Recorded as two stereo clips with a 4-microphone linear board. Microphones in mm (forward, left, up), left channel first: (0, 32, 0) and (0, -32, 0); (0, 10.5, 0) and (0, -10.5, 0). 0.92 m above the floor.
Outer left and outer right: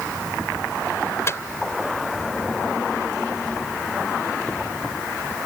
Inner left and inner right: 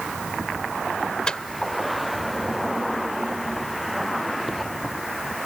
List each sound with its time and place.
1.3 s a microwave: 45° left (ahead or behind)